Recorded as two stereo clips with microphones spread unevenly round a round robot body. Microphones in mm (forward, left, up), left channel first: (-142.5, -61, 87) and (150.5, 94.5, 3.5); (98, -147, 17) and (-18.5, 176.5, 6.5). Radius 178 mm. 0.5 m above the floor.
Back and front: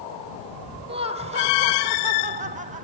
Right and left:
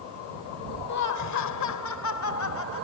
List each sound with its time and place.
0.9 s laughter: 35° right